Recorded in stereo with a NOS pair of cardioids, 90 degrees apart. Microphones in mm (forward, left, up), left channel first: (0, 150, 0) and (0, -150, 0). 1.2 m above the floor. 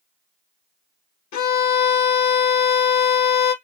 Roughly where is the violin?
Ahead left.